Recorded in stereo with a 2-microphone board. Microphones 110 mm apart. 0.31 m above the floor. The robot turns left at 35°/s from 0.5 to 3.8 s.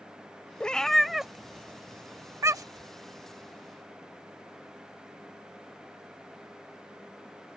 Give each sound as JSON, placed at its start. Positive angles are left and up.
{"t": 0.6, "sound": "a cat meowing", "side_deg": 10}